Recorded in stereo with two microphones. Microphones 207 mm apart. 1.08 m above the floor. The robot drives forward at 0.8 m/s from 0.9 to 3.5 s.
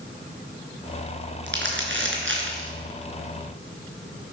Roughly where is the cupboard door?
No cupboard door in this recording.